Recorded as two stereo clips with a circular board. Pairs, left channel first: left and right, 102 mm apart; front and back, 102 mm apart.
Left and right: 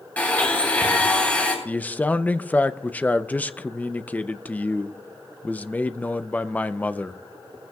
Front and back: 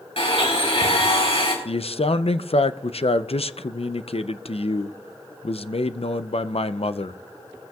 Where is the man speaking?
15° left, 0.5 m.